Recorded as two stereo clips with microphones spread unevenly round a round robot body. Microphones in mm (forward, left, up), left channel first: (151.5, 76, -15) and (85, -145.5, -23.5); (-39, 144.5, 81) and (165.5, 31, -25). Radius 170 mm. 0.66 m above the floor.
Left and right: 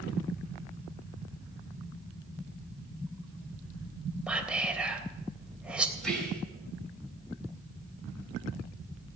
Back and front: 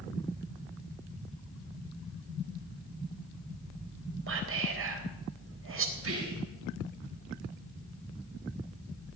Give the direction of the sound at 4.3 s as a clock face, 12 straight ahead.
1 o'clock.